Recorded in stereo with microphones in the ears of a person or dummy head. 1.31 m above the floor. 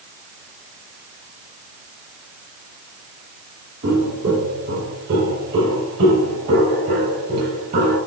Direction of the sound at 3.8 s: 70° right (ahead or behind).